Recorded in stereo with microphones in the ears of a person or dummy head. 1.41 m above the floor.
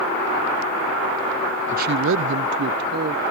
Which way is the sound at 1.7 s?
35° right (ahead or behind).